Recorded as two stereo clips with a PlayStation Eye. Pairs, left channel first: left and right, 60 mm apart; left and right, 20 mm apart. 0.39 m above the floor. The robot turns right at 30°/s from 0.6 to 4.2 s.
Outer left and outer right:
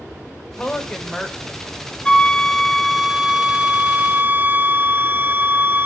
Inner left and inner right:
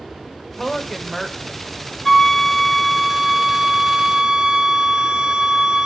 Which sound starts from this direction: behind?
A flute, at 2.0 s.